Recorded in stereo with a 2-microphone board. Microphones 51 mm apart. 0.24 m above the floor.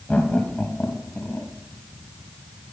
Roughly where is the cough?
No cough in this recording.